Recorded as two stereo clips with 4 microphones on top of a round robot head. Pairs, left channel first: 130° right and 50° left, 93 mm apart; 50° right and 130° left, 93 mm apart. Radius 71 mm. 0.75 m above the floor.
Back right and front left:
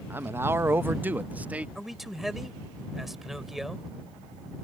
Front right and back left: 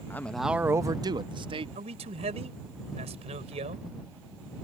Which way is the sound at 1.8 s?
135° left.